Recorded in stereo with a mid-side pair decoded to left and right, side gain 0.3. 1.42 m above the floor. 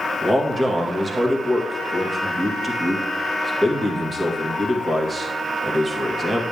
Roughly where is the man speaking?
Ahead right.